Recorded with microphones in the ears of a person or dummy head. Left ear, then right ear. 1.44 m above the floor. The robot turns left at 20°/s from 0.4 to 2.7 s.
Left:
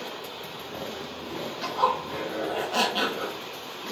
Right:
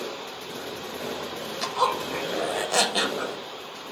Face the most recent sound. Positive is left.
turn(degrees=-75)  # may be behind; listen again after turning